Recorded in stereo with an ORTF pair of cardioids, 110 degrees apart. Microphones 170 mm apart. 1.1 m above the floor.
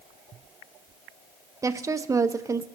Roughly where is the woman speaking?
Ahead.